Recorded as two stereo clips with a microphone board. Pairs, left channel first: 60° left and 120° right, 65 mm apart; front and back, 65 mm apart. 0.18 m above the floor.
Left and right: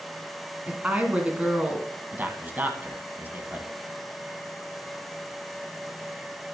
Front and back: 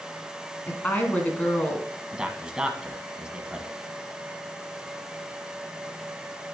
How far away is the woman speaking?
About 1.8 m.